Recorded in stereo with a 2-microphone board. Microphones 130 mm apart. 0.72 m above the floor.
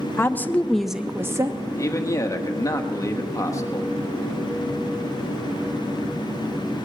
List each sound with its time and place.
0.2 s a woman speaking: 20° left (ahead or behind), 0.8 m; by 1.7 s 25° right (ahead or behind), 0.7 m
1.8 s a man speaking: 25° left (ahead or behind), 1.2 m